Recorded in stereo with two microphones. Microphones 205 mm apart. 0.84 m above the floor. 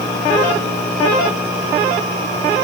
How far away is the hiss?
No hiss in this recording.